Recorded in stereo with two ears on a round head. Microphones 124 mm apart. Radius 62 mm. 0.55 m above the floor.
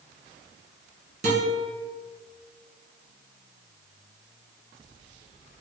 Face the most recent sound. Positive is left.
turn(degrees=-50)  # may be behind; listen again after turning